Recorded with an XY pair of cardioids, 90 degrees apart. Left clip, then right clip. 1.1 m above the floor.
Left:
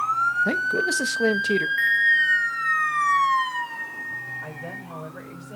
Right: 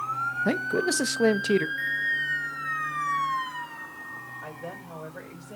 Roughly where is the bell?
Left.